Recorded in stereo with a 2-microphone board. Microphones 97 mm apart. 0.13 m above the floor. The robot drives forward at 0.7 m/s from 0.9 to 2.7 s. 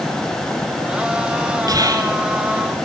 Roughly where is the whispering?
Right.